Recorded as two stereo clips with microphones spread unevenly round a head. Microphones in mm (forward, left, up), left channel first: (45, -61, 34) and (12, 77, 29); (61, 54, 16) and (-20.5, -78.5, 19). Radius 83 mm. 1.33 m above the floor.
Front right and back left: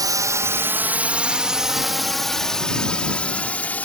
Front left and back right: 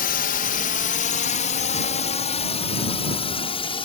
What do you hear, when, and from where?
0.0 s a drone: 45° left; by 3.9 s 5° left